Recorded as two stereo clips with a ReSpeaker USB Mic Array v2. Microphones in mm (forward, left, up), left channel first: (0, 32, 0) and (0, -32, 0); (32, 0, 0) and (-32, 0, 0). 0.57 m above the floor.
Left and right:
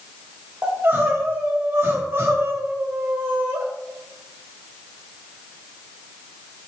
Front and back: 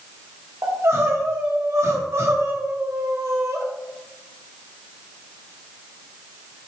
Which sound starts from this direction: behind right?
Crying, at 0.6 s.